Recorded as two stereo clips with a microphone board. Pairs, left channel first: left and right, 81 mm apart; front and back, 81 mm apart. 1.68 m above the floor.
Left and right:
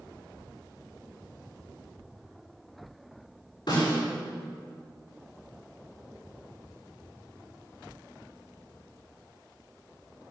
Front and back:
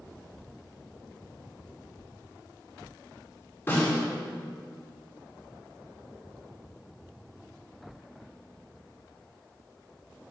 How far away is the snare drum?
About 5.5 m.